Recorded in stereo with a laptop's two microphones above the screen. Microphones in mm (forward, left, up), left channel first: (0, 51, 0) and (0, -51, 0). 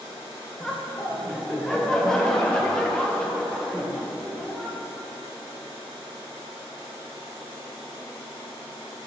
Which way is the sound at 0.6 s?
5° left (ahead or behind).